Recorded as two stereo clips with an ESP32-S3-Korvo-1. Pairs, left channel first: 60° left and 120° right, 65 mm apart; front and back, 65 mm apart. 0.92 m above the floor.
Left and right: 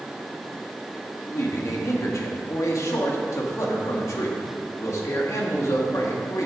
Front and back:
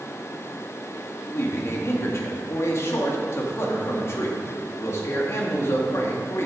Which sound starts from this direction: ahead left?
A man speaking, at 1.3 s.